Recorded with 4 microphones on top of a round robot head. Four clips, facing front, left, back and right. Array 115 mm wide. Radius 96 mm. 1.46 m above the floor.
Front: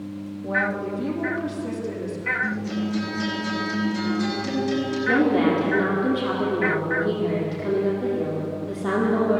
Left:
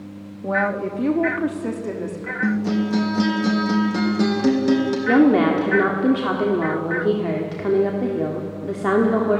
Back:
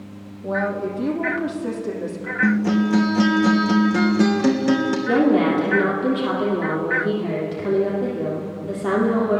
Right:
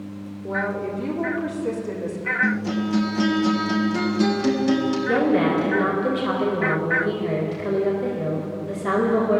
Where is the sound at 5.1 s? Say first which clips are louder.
Left 6 dB, back 2 dB; 95° left, 3.5 m.